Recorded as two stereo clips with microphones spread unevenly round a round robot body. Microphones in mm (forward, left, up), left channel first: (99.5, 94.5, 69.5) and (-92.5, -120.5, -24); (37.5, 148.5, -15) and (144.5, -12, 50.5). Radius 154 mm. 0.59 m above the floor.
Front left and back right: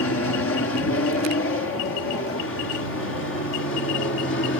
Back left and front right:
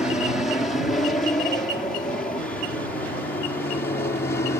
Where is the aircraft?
70° left; by 4.6 s 100° left.